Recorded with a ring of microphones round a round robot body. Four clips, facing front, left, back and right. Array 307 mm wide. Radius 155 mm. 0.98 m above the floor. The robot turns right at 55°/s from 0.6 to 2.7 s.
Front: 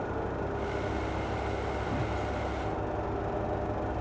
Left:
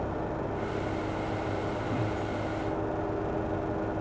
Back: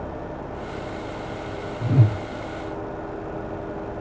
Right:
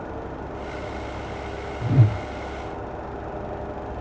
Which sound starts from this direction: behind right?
A whoosh, at 1.8 s.